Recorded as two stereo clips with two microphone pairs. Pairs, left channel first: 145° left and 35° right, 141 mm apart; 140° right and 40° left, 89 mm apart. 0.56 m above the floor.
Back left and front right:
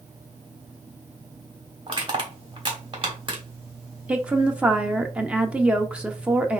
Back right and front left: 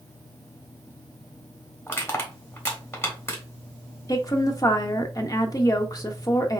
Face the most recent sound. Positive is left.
turn(degrees=-115)